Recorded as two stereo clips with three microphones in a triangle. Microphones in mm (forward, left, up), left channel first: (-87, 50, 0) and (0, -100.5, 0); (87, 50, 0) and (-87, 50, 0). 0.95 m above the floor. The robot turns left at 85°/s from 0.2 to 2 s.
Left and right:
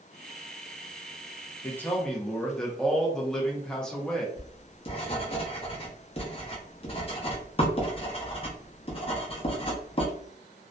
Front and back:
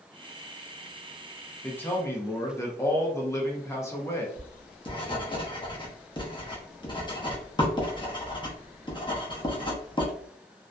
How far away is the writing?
About 0.7 m.